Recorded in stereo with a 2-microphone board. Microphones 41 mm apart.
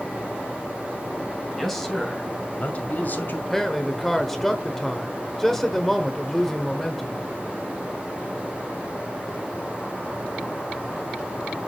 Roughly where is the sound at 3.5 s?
Centre.